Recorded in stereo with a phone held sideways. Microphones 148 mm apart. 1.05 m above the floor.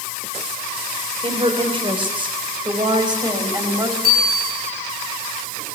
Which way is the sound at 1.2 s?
35° right (ahead or behind).